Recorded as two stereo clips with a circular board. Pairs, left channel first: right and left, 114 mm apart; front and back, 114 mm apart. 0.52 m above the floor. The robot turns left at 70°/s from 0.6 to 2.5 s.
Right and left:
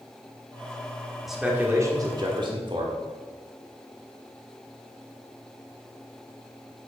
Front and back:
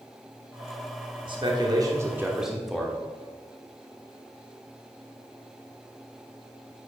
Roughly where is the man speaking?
Behind.